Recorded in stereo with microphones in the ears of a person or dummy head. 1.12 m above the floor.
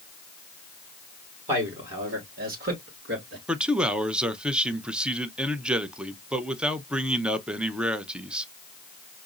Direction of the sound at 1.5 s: 30° right (ahead or behind).